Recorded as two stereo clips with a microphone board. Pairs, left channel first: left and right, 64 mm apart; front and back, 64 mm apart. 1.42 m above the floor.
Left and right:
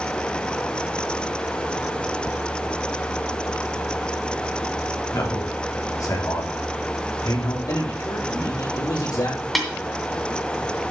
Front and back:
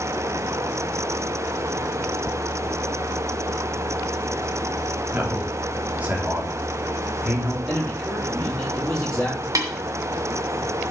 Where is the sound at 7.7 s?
85° left, 3.5 m.